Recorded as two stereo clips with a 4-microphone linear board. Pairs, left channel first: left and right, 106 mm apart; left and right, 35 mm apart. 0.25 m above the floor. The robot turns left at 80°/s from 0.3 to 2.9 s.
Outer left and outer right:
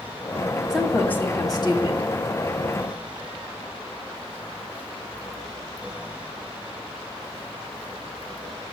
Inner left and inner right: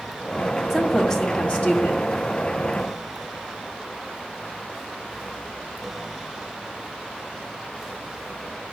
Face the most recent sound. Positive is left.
turn(degrees=15)